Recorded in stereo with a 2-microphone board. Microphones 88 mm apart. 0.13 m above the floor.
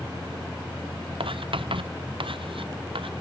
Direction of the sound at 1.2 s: 80° right.